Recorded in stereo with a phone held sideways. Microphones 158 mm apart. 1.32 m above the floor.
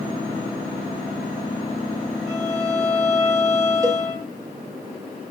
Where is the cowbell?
20° right (ahead or behind), 4 m.